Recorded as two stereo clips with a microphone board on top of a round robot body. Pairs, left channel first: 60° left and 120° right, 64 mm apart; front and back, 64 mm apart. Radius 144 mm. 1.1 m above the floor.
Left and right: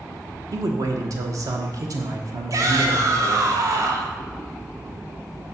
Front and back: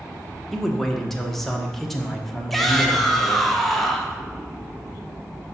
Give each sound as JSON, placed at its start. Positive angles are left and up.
{"t": 0.5, "sound": "a man speaking", "azimuth_deg": -85, "distance_m": 0.9}
{"t": 2.5, "sound": "a shout", "azimuth_deg": -85, "distance_m": 1.1}